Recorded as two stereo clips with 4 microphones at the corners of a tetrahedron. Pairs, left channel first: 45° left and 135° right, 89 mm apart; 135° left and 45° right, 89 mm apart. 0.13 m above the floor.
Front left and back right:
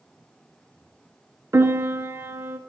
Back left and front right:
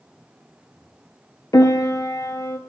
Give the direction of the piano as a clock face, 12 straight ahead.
6 o'clock.